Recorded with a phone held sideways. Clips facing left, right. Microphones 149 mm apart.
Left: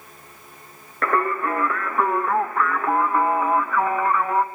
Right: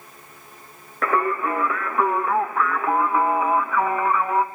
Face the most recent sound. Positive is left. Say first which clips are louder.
# even
turn(degrees=0)  # may be behind; listen again after turning